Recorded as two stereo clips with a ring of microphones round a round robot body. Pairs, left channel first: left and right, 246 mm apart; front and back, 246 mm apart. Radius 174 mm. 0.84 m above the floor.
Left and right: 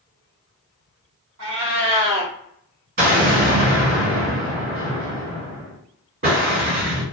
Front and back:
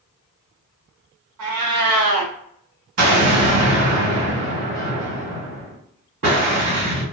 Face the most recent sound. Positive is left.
turn(degrees=-140)